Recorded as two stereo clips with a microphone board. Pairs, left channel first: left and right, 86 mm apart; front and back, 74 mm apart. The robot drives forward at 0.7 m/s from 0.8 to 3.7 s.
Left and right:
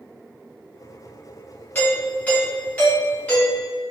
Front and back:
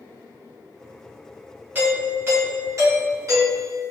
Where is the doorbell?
140° left, 1.7 m; by 3.8 s 165° left, 2.5 m.